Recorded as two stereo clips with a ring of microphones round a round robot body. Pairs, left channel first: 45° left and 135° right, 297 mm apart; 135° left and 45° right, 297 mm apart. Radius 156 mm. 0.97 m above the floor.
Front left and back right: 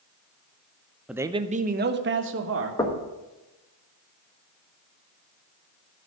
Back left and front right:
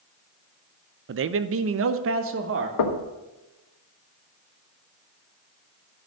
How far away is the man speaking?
About 0.6 m.